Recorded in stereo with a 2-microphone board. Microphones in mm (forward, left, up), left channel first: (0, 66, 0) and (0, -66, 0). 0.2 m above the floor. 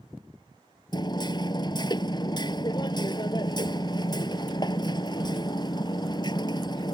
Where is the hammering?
35° left (ahead or behind).